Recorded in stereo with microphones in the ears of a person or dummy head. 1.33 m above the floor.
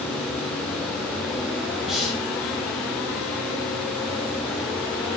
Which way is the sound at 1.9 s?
Centre (ahead or behind).